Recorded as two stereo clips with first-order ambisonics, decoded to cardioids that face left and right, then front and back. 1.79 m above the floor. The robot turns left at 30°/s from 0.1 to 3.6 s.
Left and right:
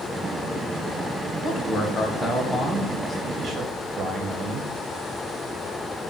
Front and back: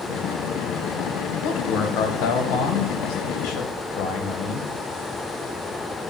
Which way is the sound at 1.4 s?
40° left.